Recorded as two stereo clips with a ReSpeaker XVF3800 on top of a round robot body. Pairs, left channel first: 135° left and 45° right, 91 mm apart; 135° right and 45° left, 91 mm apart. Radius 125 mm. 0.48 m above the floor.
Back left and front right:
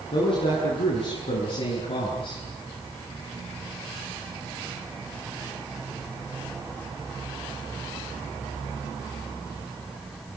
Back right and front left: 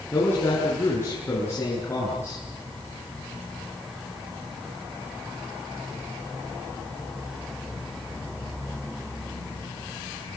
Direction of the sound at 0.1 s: 160° left.